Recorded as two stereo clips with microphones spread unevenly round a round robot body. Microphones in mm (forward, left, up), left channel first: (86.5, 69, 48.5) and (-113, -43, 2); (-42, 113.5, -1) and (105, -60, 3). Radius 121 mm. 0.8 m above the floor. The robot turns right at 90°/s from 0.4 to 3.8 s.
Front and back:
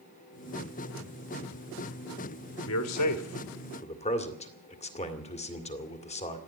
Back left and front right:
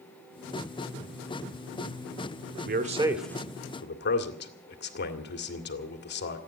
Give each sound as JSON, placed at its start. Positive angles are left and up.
{"t": 2.6, "sound": "a man speaking", "azimuth_deg": -10, "distance_m": 2.0}